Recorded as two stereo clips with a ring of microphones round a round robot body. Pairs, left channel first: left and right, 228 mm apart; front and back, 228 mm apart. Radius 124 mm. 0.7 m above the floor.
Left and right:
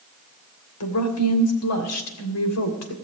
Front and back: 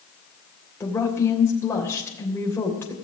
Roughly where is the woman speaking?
Left.